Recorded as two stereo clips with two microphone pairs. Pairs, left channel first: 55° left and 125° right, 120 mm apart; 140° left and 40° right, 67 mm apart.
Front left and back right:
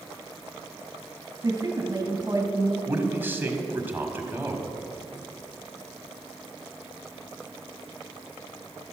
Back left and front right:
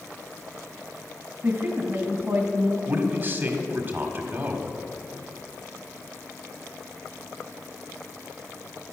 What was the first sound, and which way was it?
A woman speaking, 70° right.